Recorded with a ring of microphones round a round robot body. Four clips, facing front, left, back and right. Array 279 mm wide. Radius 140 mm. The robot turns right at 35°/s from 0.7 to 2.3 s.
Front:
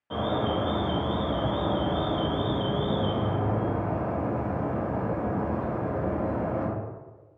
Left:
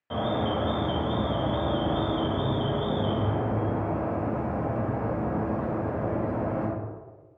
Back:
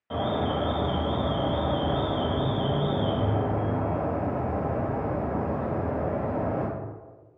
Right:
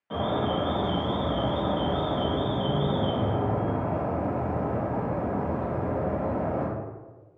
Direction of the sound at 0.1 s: 110° left.